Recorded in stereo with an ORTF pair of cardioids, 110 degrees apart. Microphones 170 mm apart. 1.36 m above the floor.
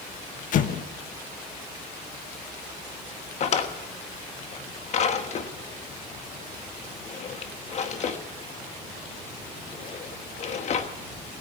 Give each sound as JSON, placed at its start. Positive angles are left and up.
{"t": 0.5, "sound": "an explosion", "azimuth_deg": 55, "distance_m": 1.1}
{"t": 3.4, "sound": "a drawer", "azimuth_deg": 45, "distance_m": 1.3}